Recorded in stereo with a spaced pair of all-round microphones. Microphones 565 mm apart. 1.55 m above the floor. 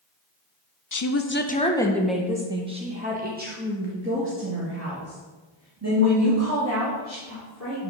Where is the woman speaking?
35° left (ahead or behind), 0.7 m; by 7.9 s 30° right (ahead or behind), 4 m.